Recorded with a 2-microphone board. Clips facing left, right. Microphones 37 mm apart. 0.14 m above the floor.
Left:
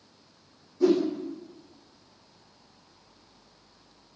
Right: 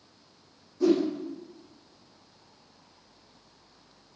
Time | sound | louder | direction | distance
0.8 | a whoosh | left 1 dB | 5° left (ahead or behind) | 5.5 m